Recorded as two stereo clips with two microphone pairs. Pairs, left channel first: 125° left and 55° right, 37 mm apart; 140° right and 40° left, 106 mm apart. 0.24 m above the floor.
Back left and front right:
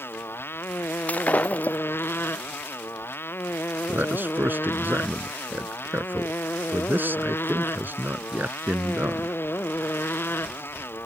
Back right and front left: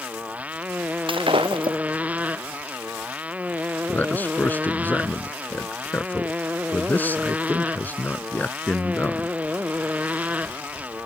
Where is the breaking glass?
80° left.